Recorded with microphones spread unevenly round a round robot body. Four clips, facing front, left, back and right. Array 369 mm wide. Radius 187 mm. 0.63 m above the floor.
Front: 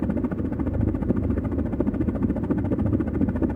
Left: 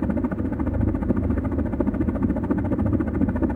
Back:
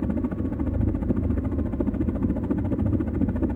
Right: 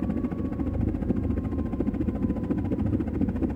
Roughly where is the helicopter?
Ahead left.